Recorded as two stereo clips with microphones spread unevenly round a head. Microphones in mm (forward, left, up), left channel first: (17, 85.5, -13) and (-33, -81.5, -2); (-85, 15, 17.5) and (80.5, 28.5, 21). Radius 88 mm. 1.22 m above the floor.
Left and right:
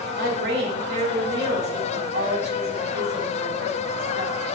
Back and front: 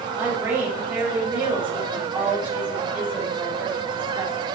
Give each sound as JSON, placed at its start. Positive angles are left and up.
{"t": 0.2, "sound": "a woman speaking", "azimuth_deg": -75, "distance_m": 3.0}